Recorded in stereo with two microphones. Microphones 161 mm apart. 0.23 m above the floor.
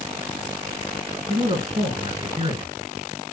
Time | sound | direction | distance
1.3 | a man speaking | 40° right (ahead or behind) | 3 m